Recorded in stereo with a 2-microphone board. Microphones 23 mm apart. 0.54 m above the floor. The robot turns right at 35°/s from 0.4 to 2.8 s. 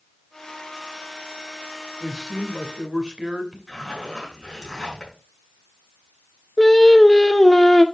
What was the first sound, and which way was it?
A man speaking, 10° right (ahead or behind).